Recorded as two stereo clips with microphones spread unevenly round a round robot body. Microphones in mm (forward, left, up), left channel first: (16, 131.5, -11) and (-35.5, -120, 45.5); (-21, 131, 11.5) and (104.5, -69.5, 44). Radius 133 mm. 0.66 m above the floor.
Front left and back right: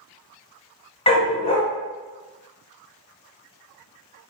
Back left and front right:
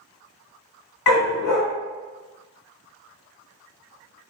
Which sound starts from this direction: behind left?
A dog barking, at 1.1 s.